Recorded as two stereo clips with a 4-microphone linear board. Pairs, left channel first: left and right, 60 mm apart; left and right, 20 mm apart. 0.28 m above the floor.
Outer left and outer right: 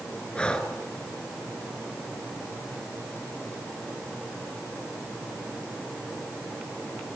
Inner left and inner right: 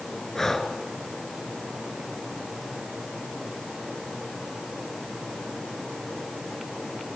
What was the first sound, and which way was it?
Breathing, 15° left (ahead or behind).